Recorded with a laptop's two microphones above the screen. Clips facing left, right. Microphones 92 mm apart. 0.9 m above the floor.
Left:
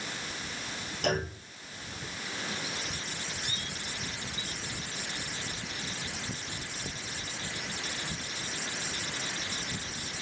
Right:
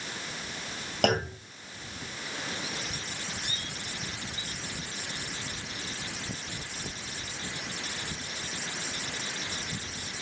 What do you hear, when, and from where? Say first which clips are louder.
1.0 s a clunk: right 4 dB; 75° right (ahead or behind), 2.5 m